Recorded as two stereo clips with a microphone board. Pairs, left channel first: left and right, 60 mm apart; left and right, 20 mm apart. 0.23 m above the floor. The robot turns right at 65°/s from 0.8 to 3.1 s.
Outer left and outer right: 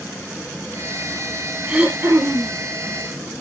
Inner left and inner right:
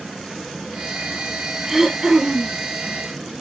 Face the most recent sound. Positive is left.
turn(degrees=-70)